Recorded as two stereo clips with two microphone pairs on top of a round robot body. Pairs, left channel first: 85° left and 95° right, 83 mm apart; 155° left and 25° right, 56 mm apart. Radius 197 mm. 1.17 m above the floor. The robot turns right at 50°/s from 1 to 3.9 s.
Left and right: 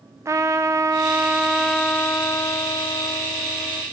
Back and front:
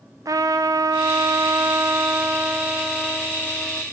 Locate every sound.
0.2 s a trumpet: 40° right, 0.8 m; by 3.8 s 100° left, 0.8 m